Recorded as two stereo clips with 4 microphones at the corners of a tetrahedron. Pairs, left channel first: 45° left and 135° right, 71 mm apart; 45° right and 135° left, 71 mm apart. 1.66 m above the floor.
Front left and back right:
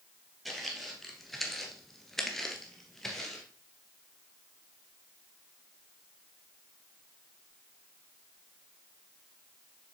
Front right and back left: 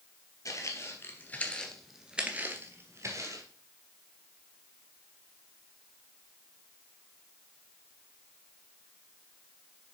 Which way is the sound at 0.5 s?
45° right.